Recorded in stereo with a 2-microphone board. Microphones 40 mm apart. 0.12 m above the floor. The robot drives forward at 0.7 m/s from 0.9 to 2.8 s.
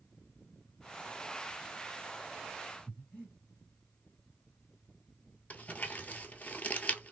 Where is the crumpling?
45° left (ahead or behind), 0.7 m.